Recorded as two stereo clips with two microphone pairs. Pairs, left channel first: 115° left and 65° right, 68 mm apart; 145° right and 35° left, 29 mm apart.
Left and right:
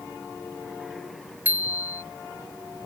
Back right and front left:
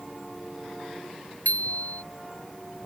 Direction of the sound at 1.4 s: 125° right.